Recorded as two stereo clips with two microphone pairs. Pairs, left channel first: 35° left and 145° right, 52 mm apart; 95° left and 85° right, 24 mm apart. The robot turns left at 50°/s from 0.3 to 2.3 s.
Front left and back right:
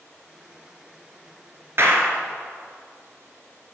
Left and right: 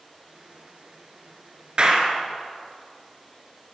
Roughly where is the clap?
Behind right.